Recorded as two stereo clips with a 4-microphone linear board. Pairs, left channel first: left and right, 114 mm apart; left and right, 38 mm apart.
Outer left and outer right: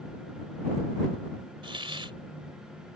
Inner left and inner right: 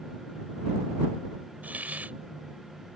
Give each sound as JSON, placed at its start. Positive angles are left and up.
{"t": 1.6, "sound": "a hiss", "side_deg": -50}